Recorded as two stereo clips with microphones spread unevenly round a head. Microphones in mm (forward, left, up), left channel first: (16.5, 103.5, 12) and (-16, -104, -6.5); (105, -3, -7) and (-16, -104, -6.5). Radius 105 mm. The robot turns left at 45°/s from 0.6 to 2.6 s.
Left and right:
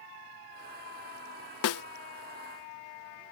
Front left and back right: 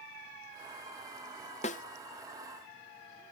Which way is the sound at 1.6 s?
100° left.